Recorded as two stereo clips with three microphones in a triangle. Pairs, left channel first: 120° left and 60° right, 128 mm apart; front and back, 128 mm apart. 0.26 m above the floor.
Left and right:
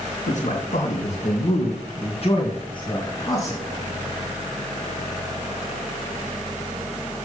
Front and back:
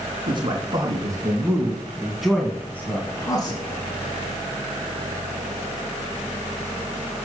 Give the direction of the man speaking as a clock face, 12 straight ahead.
8 o'clock.